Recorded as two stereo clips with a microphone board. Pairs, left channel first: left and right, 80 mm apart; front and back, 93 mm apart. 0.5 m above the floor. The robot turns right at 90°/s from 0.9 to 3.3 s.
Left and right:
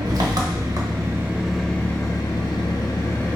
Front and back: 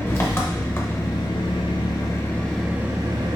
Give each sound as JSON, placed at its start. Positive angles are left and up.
{"t": 0.0, "sound": "an engine running", "azimuth_deg": -60, "distance_m": 0.8}